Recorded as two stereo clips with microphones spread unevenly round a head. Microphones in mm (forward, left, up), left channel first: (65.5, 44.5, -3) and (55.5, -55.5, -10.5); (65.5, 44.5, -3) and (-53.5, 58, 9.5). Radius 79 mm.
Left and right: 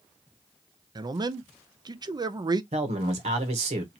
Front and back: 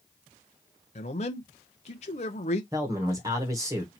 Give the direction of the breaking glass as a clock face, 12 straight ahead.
I don't hear breaking glass.